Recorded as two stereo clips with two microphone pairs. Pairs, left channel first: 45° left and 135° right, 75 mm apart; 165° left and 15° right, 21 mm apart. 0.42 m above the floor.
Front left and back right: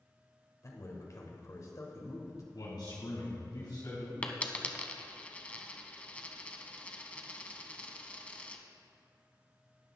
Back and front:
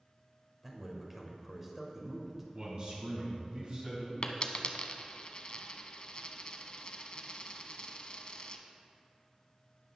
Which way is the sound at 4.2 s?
120° left.